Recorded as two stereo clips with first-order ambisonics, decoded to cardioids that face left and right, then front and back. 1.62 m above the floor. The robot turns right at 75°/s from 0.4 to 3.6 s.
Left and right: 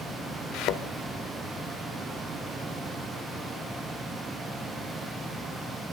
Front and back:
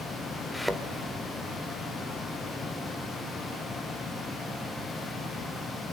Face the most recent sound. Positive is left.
turn(degrees=-50)